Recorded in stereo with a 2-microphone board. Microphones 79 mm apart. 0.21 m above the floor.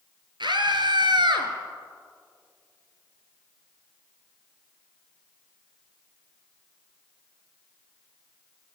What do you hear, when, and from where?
0.4 s a scream: 70° right (ahead or behind), 4 m